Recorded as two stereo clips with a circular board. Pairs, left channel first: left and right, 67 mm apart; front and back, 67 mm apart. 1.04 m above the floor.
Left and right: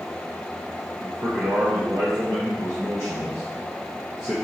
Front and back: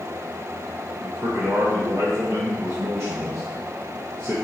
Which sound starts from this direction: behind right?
A man speaking, at 1.0 s.